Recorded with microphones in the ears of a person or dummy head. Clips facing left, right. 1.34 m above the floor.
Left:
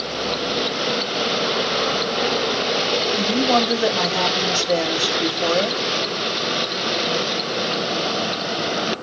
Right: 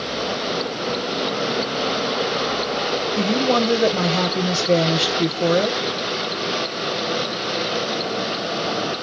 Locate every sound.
3.2 s a woman speaking: 40° right (ahead or behind), 1.1 m